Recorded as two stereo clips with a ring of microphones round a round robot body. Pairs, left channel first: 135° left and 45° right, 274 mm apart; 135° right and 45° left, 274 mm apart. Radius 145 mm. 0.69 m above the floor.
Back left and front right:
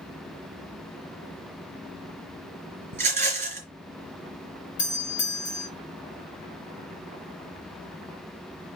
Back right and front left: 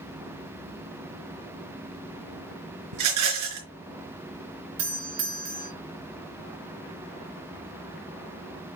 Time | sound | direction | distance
2.9 | a rattle | 20° left | 3 m
4.8 | a doorbell | 75° left | 3.5 m